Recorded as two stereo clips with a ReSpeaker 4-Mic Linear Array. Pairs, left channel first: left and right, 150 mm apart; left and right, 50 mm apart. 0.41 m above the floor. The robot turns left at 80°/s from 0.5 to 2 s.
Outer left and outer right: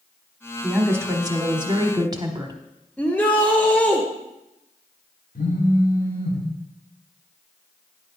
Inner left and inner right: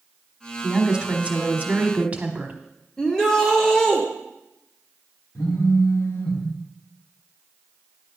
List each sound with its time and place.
0.6 s a woman speaking: 5° right, 1.1 m; by 2.6 s 115° right, 1.1 m
3.0 s a shout: 10° left (ahead or behind), 0.9 m
5.3 s a phone buzzing: 70° left (ahead or behind), 2 m